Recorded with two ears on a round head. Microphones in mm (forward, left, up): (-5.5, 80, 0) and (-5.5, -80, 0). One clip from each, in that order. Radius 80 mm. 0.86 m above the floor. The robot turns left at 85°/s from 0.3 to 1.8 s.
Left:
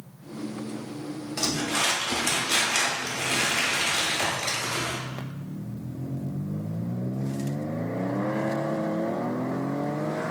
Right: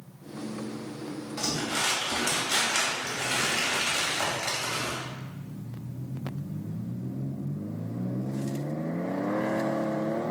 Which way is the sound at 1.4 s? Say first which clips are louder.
Left 3 dB; 45° left.